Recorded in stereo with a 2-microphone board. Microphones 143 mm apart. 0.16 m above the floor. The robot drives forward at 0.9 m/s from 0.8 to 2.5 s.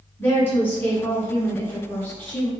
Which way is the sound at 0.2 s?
15° left (ahead or behind).